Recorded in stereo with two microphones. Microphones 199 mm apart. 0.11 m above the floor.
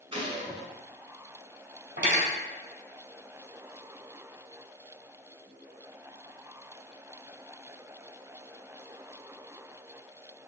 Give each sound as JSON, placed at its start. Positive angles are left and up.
{"t": 0.1, "sound": "a gunshot", "side_deg": -25, "distance_m": 1.4}
{"t": 2.0, "sound": "cutlery clinking", "side_deg": -65, "distance_m": 1.7}